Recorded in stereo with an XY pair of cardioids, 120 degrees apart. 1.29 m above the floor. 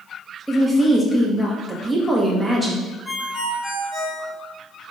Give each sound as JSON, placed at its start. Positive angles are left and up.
{"t": 0.5, "sound": "a woman speaking", "azimuth_deg": -5, "distance_m": 1.3}
{"t": 3.0, "sound": "a ringtone", "azimuth_deg": 40, "distance_m": 1.8}